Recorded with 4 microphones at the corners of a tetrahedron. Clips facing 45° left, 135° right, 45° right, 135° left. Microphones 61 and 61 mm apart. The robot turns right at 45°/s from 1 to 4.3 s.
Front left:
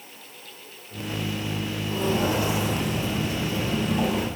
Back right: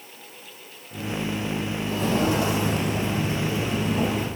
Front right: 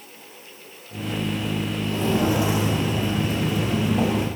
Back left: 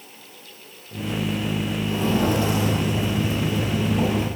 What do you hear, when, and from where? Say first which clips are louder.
1.9 s footsteps: back right 1 dB, even; 155° right, 3.5 m; by 4.2 s 35° right, 6 m